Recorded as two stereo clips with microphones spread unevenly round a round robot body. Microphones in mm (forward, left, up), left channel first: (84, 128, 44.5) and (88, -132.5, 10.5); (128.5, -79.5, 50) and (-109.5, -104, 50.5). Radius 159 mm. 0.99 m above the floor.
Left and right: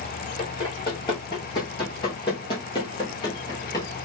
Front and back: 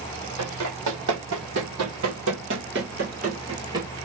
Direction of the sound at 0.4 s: 165° left.